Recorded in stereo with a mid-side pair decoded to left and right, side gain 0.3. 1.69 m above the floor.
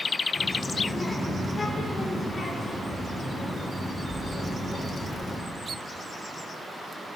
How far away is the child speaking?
About 3 m.